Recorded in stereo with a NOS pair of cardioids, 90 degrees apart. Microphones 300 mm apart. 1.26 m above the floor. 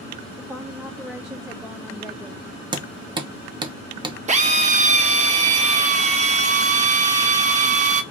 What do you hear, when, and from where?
0.4 s a woman speaking: 5° right, 0.5 m
2.7 s hammering: 15° right, 0.6 m
4.3 s a drill: 25° right, 0.6 m